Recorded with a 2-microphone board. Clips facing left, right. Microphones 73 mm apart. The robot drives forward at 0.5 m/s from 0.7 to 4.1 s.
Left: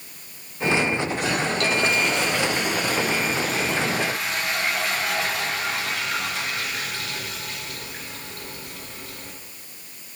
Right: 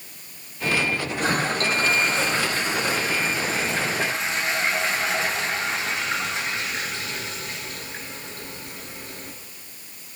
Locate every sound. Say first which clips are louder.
1.2 s a toilet flushing: right 4 dB; 40° right (ahead or behind), 2.5 m; by 9.3 s 25° right (ahead or behind), 3.5 m